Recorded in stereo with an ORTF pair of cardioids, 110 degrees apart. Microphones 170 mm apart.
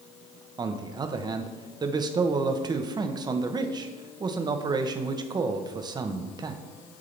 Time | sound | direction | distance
0.6 | a man speaking | 25° right | 0.8 m